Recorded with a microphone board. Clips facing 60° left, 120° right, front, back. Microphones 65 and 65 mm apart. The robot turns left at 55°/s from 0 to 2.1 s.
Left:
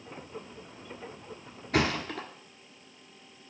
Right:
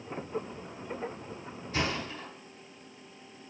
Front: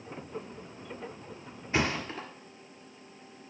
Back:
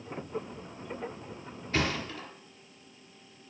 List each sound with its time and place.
1.7 s a thud: 70° left, 1.3 m; by 2.3 s 50° left, 1.3 m